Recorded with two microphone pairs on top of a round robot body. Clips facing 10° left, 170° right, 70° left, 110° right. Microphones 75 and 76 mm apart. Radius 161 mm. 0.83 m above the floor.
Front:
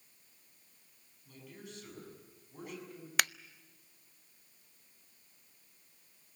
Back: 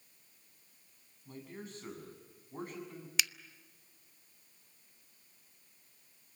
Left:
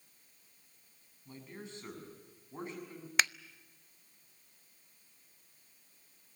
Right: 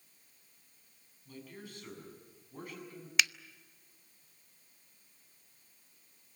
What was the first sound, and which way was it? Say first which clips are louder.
A man speaking: back 4 dB, left 1 dB; 135° left.